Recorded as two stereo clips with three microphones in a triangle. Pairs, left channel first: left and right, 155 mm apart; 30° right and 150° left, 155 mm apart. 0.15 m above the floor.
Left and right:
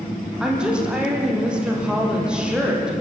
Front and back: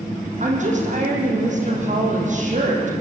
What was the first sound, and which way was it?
A woman speaking, 175° right.